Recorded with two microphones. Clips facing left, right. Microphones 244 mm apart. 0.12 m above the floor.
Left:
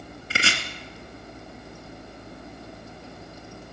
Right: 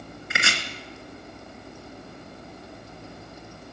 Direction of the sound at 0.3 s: 35° left (ahead or behind).